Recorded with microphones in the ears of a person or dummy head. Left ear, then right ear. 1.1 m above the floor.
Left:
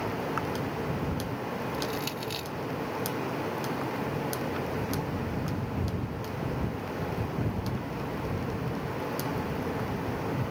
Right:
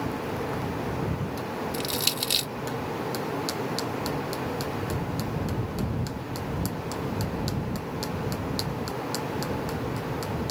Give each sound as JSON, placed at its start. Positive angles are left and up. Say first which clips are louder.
{"t": 1.7, "sound": "crushing", "louder": "right 5 dB", "side_deg": -25}